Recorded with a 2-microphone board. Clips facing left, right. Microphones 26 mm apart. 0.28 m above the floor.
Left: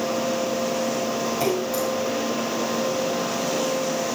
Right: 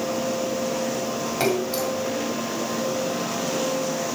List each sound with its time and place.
1.4 s a splash: 65° right (ahead or behind), 6 m